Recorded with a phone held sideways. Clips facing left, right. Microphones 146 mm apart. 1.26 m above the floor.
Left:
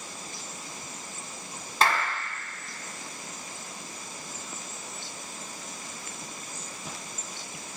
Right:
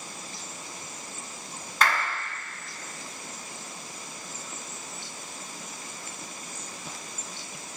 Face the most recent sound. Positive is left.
turn(degrees=30)  # may be behind; listen again after turning